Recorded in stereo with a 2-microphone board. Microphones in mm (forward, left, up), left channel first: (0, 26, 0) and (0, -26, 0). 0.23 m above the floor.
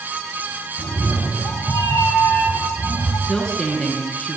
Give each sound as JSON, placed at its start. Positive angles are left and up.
{"t": 0.8, "sound": "a cat meowing", "side_deg": 70, "distance_m": 7.5}
{"t": 3.3, "sound": "a woman speaking", "side_deg": 10, "distance_m": 3.0}